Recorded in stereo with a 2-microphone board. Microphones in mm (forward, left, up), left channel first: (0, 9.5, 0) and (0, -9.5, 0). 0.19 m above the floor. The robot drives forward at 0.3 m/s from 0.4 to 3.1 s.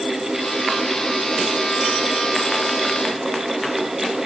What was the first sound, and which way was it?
Only background noise.